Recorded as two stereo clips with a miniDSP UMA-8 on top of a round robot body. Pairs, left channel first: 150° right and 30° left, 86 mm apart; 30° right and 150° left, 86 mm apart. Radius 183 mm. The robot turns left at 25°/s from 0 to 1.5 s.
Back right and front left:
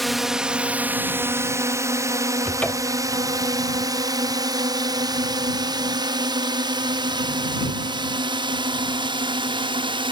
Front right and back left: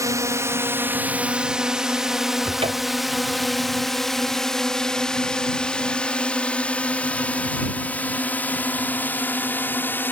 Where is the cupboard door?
135° left.